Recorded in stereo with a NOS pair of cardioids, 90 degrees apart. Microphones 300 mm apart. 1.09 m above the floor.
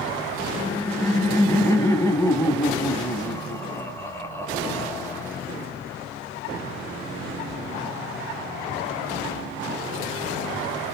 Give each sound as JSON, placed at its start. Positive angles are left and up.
{"t": 0.6, "sound": "laughter", "azimuth_deg": 10, "distance_m": 0.9}